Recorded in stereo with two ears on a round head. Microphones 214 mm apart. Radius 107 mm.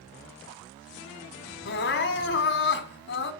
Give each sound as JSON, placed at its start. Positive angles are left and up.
{"t": 1.6, "sound": "crying", "side_deg": 50, "distance_m": 1.8}